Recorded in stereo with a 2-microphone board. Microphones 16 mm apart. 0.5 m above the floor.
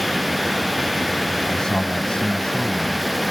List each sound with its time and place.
1.5 s a man speaking: 45° left (ahead or behind); by 3.1 s 75° left (ahead or behind)